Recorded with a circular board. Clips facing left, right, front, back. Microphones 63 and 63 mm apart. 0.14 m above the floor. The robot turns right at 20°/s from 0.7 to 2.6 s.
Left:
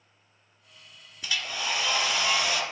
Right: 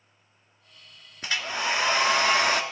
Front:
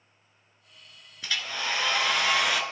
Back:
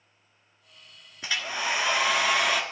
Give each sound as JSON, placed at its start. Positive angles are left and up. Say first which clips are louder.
{"t": 1.2, "sound": "a hair dryer", "louder": "right 3 dB, back 2 dB", "azimuth_deg": -120, "distance_m": 1.2}